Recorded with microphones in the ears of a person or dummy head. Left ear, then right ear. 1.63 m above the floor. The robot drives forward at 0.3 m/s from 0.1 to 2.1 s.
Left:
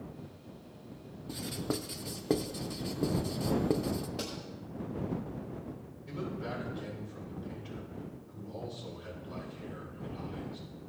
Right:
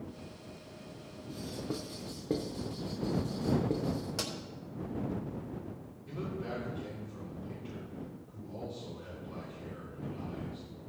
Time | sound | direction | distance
1.3 | writing | 40° left (ahead or behind) | 0.6 m
4.2 | a pop | 50° right (ahead or behind) | 3 m
6.1 | a man speaking | 5° left (ahead or behind) | 5.5 m